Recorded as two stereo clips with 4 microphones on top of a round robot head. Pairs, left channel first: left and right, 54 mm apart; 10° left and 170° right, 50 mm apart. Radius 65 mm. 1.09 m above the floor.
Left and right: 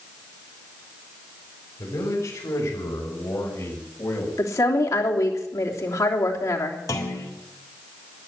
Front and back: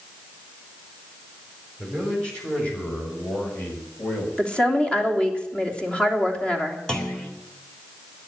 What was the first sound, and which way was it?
A man speaking, 85° left.